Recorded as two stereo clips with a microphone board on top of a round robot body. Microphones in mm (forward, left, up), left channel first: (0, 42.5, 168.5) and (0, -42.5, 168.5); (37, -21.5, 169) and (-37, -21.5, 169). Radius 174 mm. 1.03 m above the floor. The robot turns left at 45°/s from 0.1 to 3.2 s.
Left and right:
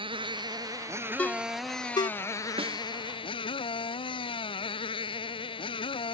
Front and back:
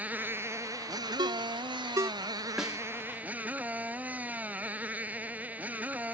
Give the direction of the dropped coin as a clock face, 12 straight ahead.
I don't hear a dropped coin.